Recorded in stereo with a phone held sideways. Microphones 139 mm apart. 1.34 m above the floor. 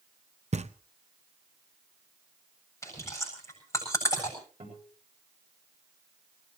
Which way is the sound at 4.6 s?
60° right (ahead or behind).